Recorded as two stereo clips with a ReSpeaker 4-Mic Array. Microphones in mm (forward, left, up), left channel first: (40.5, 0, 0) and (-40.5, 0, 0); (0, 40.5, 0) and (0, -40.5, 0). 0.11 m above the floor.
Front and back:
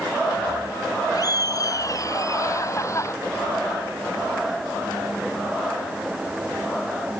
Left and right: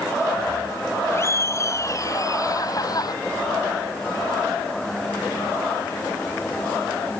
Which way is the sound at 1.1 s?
35° left.